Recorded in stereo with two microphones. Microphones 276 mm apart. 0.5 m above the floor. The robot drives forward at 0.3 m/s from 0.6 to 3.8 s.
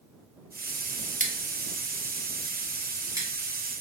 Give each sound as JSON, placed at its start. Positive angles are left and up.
{"t": 1.2, "sound": "scissors", "side_deg": -30, "distance_m": 0.5}